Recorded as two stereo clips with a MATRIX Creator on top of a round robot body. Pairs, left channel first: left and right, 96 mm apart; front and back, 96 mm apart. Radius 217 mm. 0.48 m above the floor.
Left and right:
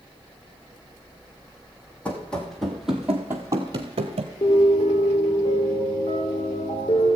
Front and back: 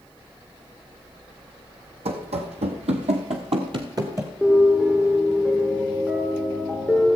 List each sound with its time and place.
2.0 s running footsteps: 170° left, 1.6 m; by 4.3 s 105° right, 0.9 m
4.4 s a piano: 95° left, 3 m